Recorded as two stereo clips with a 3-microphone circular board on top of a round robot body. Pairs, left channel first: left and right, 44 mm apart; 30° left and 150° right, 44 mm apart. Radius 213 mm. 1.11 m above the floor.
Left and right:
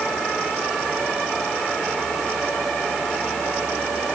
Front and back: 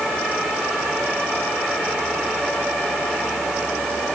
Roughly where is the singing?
No singing in this recording.